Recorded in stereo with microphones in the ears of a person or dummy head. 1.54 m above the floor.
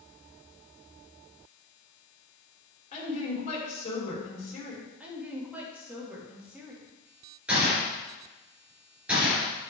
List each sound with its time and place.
2.9 s a woman speaking: 35° left (ahead or behind), 4.5 m
5.0 s a woman speaking: 10° right (ahead or behind), 3 m
7.5 s a gunshot: 5° right (ahead or behind), 4 m